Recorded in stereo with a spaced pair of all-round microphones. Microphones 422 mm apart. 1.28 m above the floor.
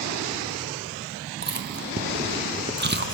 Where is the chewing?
25° right (ahead or behind), 0.6 m.